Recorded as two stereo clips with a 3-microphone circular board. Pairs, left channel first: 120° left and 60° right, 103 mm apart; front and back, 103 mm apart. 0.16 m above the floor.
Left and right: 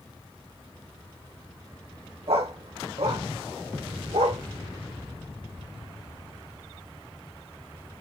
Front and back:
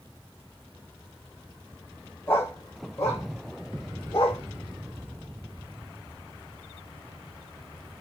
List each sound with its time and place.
2.3 s a dog barking: 70° right, 2.5 m; by 4.4 s 45° right, 4 m